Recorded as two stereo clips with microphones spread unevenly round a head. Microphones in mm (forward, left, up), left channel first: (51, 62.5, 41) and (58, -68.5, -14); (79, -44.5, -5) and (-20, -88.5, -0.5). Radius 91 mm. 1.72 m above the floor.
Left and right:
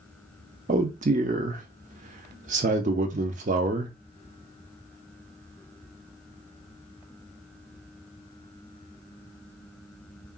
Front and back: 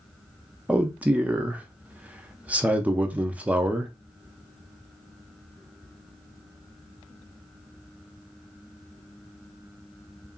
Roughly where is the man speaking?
Right.